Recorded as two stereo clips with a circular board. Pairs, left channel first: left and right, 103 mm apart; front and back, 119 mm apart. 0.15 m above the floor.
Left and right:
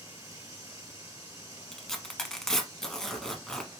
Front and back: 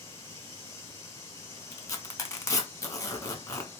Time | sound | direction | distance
0.0 | running water | 55° right | 1.7 m
1.7 | tearing paper | 10° left | 0.7 m